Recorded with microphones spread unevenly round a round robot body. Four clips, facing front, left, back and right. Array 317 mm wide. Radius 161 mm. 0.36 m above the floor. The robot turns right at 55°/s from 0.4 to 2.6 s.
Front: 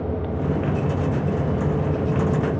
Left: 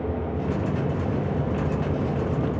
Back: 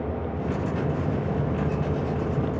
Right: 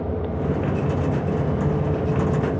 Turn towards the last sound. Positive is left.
No sound to turn to.